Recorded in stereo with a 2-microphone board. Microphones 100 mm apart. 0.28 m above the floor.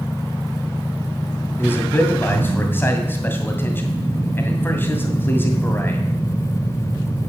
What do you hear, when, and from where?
1.6 s a man speaking: 20° left (ahead or behind), 2 m